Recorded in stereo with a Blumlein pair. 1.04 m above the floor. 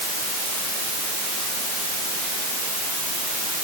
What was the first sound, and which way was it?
Only background noise.